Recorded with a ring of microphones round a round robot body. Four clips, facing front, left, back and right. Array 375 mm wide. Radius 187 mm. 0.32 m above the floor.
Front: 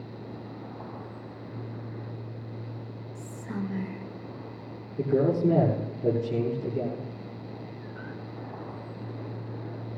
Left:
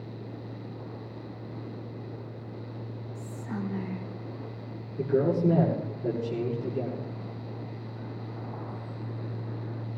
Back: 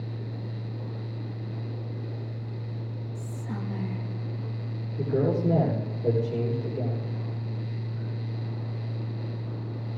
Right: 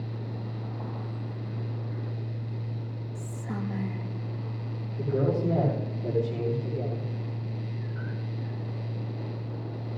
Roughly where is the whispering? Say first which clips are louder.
Even, front 3 dB; right.